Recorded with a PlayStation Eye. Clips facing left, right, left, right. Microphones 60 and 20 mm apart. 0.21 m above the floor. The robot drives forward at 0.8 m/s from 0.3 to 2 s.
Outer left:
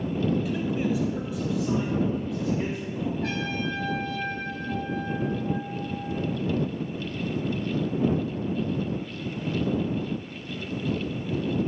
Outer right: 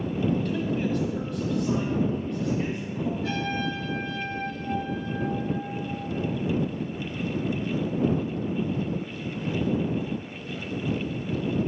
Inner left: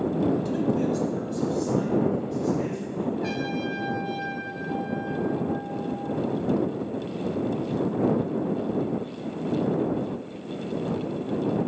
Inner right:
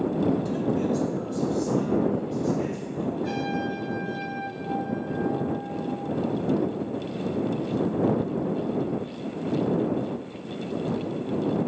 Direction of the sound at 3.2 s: 70° left (ahead or behind).